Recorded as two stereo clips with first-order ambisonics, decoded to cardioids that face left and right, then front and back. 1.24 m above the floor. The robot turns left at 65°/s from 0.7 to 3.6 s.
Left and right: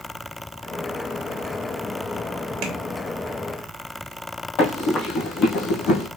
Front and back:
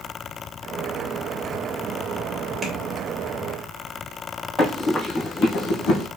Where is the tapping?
105° right, 1.4 m; by 2.7 s 110° right, 1.4 m.